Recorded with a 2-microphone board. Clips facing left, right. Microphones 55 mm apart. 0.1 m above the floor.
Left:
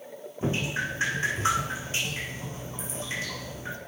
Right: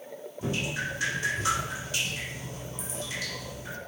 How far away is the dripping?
About 3.5 m.